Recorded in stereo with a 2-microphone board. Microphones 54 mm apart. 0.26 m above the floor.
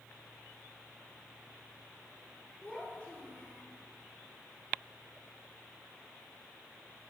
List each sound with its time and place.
2.6 s a child speaking: 25° left (ahead or behind), 2.5 m